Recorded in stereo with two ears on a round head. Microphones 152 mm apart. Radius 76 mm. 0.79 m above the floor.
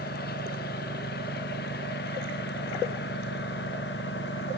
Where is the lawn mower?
60° left (ahead or behind); by 4.6 s 70° left (ahead or behind).